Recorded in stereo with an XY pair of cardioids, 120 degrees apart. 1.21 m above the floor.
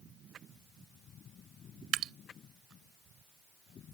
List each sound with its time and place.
1.9 s dripping: 65° right